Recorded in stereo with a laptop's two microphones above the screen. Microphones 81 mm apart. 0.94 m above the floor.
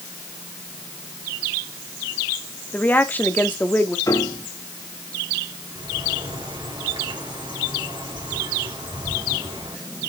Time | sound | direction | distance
2.7 | a woman speaking | 20° left (ahead or behind) | 1.5 m
4.1 | a piano | 45° left (ahead or behind) | 1.1 m
5.8 | a bird | 75° right (ahead or behind) | 3.5 m